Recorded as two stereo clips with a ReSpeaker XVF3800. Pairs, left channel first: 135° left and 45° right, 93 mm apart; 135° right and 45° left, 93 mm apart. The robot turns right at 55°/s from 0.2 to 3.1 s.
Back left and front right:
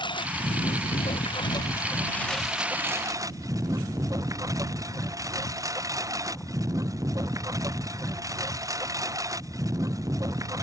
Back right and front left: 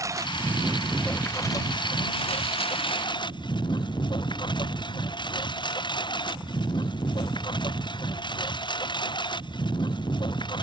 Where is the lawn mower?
100° left; by 10.6 s 100° right.